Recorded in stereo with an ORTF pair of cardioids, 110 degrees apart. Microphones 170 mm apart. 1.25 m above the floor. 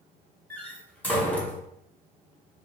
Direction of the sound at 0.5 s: 10° left.